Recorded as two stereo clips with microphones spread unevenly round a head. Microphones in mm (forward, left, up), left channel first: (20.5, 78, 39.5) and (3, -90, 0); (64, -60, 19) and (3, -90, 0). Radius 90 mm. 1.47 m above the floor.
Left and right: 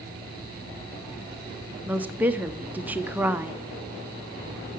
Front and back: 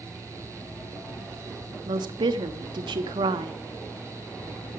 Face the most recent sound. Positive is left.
turn(degrees=180)